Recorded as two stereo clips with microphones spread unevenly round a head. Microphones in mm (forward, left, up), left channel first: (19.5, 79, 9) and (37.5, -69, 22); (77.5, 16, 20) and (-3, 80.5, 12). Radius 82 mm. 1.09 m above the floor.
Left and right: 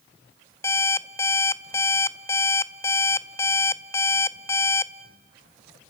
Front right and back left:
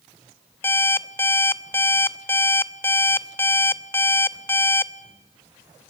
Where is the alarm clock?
25° left, 0.6 m.